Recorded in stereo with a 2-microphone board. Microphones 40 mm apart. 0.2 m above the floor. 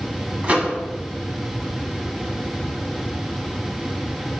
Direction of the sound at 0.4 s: 35° right (ahead or behind).